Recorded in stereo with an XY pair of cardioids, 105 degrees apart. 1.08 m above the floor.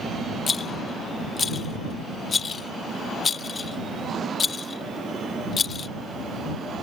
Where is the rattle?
40° left.